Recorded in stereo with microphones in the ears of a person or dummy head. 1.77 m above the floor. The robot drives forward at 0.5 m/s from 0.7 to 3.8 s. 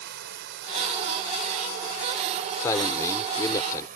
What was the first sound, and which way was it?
Running water, 60° right (ahead or behind).